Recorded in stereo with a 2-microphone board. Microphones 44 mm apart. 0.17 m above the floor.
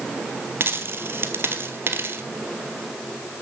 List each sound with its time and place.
0.6 s a dropped coin: 55° right (ahead or behind), 1.2 m